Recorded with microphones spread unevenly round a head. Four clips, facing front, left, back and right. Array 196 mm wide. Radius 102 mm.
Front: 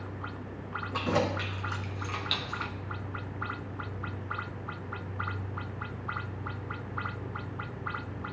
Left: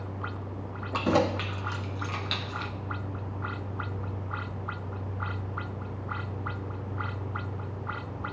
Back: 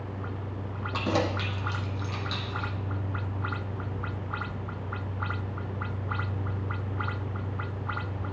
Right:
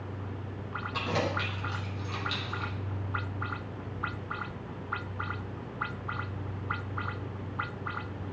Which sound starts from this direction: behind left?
Keys jangling, at 0.9 s.